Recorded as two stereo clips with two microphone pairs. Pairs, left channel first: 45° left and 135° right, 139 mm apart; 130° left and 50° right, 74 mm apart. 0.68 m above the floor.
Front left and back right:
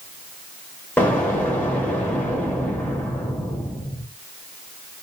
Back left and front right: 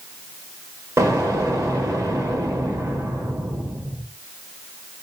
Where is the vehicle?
No vehicle in this recording.